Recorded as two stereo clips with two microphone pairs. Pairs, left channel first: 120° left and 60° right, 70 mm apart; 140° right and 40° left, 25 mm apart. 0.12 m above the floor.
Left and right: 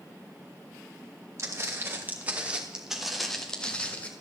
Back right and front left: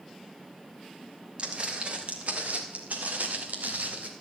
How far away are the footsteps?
About 2 m.